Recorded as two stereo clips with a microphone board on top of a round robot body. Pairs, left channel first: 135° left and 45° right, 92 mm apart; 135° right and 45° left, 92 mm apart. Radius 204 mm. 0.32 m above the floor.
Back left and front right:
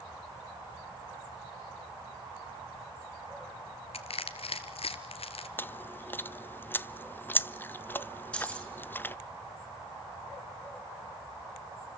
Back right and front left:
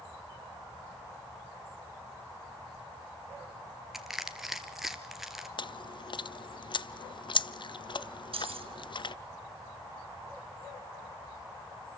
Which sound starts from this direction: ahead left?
Keys jangling, at 8.3 s.